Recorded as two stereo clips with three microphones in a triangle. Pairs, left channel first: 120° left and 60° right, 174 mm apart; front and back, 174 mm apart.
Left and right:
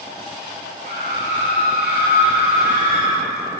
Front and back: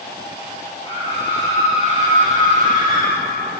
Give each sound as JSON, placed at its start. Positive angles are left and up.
{"t": 0.8, "sound": "a scream", "azimuth_deg": -55, "distance_m": 2.5}